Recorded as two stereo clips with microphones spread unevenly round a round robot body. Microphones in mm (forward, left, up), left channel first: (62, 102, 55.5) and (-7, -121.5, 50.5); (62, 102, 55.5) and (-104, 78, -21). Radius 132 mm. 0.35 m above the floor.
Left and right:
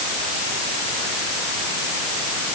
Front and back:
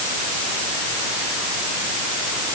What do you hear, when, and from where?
Only background noise.